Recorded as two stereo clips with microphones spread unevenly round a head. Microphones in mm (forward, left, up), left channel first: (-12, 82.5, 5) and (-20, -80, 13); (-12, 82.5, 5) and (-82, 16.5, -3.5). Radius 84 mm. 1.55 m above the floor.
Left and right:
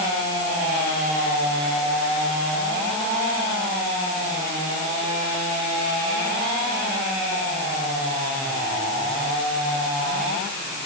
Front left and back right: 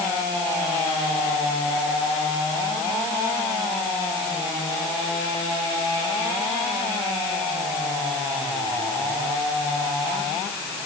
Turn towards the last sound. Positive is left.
No sound to turn to.